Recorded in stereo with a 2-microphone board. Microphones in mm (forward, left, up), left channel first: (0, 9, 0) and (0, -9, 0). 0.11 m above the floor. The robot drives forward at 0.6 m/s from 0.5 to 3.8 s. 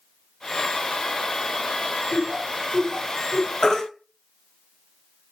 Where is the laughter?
40° left (ahead or behind), 1.4 m; by 3.5 s 30° left (ahead or behind), 1.6 m.